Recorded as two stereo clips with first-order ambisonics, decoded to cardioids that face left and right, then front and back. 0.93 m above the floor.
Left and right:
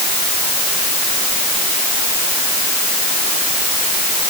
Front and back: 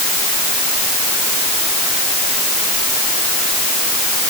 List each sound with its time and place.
Only background noise.